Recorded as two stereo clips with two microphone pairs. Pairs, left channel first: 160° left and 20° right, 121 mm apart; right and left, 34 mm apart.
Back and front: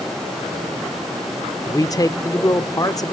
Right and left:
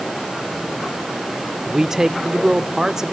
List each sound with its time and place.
1.6 s a man speaking: 160° left, 0.8 m